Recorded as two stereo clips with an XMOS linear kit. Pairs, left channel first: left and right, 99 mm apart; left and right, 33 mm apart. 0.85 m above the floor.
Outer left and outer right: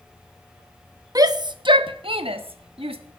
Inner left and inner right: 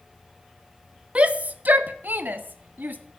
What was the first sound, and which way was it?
A shout, 35° right (ahead or behind).